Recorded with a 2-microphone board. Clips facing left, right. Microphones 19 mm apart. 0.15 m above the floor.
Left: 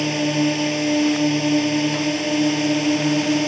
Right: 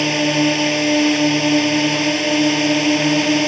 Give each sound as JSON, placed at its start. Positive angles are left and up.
{"t": 0.0, "sound": "a drone", "side_deg": -20}